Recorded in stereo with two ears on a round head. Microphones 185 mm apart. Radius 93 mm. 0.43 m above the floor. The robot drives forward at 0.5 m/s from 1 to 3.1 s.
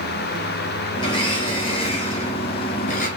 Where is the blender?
20° left (ahead or behind), 2 m; by 3.1 s 40° left (ahead or behind), 1.1 m.